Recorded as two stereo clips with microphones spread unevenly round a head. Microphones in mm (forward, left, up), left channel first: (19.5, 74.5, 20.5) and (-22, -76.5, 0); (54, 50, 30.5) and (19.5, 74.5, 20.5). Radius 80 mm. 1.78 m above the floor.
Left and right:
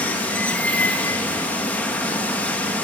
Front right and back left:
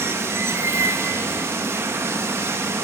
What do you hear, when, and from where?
0.0 s running water: 145° left, 1.4 m